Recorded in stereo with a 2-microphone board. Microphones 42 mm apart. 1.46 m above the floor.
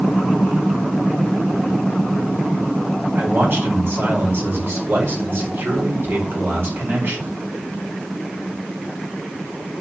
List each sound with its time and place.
3.1 s a man speaking: 55° right (ahead or behind), 4.5 m